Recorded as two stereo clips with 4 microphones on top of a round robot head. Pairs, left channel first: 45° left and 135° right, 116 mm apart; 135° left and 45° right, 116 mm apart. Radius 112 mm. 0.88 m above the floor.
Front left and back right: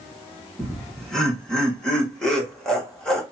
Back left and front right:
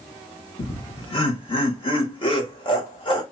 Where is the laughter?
125° left, 1.3 m.